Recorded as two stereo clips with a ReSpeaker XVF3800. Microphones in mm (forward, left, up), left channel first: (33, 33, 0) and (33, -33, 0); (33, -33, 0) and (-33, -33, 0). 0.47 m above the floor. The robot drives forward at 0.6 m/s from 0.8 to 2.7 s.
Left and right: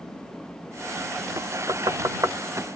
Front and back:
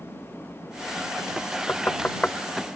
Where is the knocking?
60° right, 1.4 m; by 2.4 s 75° right, 1.2 m.